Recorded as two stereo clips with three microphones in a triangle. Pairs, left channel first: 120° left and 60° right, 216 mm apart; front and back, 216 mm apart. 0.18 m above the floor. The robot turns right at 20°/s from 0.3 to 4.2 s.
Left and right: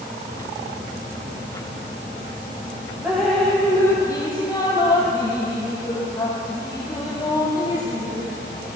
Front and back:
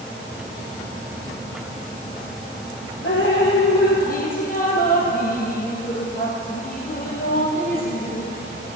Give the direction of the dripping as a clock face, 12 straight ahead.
11 o'clock.